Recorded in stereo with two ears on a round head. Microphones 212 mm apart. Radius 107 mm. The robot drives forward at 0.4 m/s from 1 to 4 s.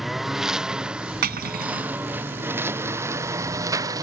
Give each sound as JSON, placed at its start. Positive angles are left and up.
{"t": 0.0, "sound": "a lawn mower", "side_deg": 0}
{"t": 1.2, "sound": "cutlery clinking", "side_deg": -45}